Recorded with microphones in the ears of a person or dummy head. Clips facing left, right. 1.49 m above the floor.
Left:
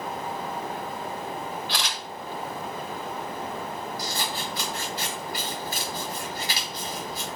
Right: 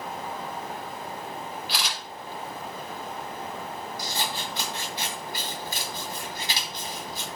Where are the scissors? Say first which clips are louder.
Left 1 dB; 15° right (ahead or behind), 2.5 m.